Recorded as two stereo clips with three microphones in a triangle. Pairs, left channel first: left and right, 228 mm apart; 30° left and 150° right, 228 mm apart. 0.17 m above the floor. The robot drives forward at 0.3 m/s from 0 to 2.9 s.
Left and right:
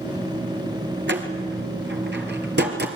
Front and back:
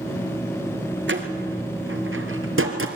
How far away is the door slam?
About 3 m.